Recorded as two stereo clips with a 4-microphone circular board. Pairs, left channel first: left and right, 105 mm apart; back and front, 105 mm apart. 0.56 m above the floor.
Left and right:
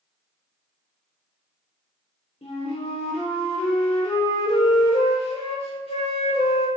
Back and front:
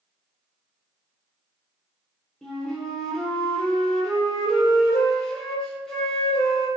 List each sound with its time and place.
2.4 s a flute: 95° left, 0.9 m